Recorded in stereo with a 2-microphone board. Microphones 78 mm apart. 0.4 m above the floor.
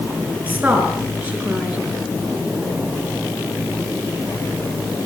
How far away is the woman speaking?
About 6 m.